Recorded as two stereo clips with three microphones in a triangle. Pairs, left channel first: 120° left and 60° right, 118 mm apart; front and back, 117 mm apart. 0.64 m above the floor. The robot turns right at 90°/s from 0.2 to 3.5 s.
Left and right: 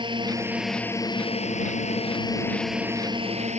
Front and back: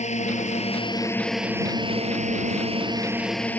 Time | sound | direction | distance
0.0 | a drone | 15° right | ?